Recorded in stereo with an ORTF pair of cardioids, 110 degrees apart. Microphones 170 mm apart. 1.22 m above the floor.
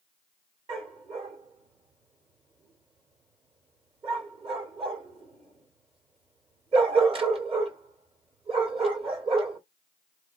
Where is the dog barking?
35° right, 1.9 m.